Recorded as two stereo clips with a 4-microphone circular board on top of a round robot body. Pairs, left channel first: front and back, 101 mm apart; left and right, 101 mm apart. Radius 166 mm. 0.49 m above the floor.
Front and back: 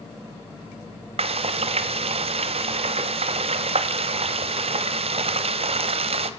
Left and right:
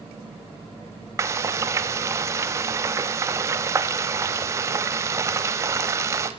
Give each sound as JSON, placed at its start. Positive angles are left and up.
{"t": 1.2, "sound": "frying", "azimuth_deg": -155, "distance_m": 0.8}